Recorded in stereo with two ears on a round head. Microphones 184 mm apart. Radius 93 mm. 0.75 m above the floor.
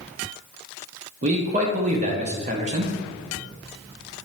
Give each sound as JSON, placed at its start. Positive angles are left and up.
{"t": 1.2, "sound": "a man speaking", "side_deg": -35, "distance_m": 0.6}